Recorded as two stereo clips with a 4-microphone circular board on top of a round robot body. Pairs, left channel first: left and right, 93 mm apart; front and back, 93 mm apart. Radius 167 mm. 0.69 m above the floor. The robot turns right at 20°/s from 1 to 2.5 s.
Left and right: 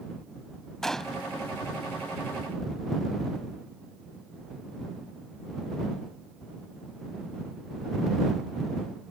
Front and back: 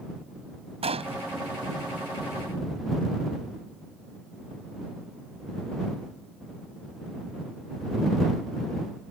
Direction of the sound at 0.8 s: 175° left.